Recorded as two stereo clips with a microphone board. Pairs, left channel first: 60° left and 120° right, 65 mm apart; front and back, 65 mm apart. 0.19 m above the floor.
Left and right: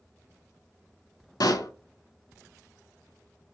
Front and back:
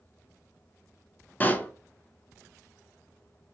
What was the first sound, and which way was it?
A pop, 60° left.